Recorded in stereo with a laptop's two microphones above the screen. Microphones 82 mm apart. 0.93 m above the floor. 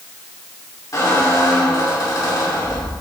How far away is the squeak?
About 1.8 m.